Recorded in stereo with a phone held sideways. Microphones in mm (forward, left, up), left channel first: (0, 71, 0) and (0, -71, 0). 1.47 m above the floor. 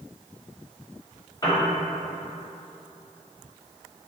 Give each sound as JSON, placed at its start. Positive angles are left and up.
{"t": 1.4, "sound": "a piano", "side_deg": 25, "distance_m": 0.7}